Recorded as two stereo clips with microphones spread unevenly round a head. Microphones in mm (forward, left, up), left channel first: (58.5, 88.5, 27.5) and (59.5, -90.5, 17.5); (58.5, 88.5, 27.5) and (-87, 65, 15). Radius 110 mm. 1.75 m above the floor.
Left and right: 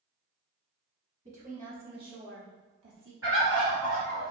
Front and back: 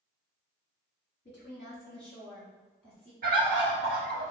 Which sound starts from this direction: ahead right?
A woman speaking, at 1.2 s.